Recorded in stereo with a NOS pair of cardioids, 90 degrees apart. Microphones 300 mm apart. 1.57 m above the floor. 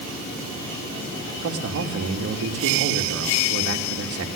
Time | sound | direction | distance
1.4 | a man speaking | 50° right | 3.5 m